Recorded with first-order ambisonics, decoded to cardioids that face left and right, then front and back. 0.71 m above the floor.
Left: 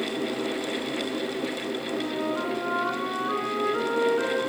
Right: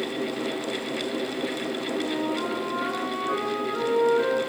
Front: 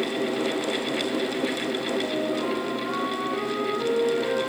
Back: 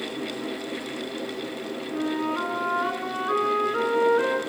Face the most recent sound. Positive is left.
turn(degrees=170)